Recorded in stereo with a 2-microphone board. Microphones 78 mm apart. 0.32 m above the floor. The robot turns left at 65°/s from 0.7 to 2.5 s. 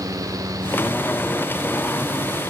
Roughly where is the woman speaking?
I don't hear a woman speaking.